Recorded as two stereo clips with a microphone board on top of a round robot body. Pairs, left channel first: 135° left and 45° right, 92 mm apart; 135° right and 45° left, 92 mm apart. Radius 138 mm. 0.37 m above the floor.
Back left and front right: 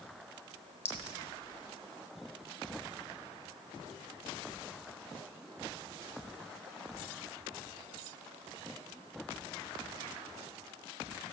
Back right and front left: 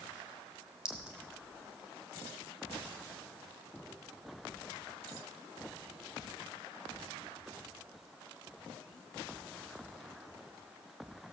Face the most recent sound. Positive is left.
turn(degrees=125)